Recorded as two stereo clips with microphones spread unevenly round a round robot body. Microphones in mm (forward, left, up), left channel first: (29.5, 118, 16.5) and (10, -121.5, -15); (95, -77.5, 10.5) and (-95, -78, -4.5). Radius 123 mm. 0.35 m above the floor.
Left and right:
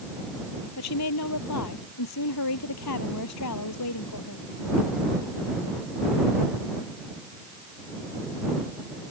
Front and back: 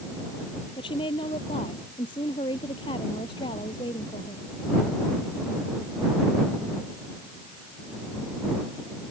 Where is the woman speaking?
70° left.